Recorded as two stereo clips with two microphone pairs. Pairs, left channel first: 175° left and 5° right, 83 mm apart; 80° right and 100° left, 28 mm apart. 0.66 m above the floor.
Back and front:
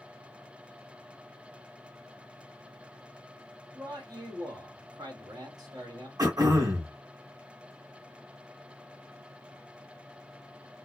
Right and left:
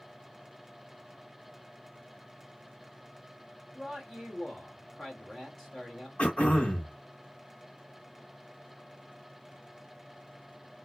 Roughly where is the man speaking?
Ahead.